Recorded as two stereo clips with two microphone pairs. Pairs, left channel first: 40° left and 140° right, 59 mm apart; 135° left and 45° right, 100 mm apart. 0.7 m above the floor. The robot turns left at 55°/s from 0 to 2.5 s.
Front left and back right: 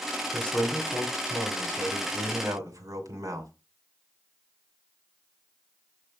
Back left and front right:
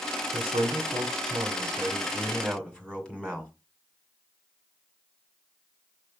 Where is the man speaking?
30° right, 2 m; by 3.5 s 150° right, 2 m.